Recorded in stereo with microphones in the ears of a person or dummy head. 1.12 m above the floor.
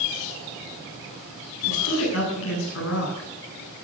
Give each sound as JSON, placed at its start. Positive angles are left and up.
{"t": 1.7, "sound": "a woman speaking", "side_deg": 85, "distance_m": 8.5}